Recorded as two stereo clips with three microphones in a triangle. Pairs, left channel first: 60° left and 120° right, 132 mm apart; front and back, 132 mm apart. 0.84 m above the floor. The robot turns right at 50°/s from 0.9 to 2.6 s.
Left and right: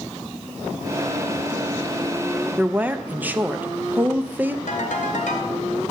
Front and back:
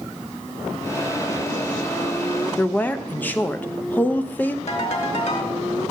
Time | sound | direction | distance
2.6 | a woman speaking | 60° right | 0.5 m
4.7 | a ringtone | 35° left | 1.9 m